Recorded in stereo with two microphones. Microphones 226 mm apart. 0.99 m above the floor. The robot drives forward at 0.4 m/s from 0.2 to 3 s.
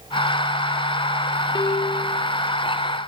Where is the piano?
20° left (ahead or behind), 0.7 m; by 2.2 s 25° left (ahead or behind), 0.7 m.